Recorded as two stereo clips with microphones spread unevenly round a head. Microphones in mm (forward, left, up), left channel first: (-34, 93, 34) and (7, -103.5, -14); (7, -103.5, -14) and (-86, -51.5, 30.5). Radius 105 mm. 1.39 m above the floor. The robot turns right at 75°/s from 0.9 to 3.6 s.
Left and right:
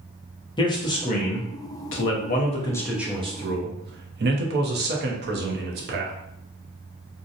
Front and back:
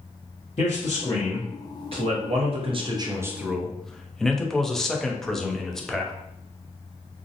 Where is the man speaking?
35° left, 0.7 m; by 6.1 s 120° right, 0.7 m.